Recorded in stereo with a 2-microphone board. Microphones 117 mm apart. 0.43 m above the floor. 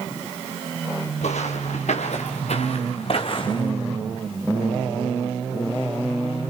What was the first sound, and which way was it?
Footsteps, 80° left.